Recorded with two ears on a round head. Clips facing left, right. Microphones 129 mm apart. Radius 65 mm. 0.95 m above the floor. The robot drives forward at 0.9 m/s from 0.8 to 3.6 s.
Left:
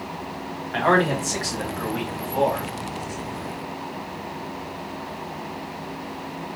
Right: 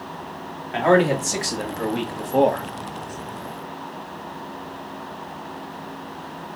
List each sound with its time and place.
0.7 s a man speaking: 20° right (ahead or behind), 1.7 m; by 2.7 s 50° right (ahead or behind), 0.8 m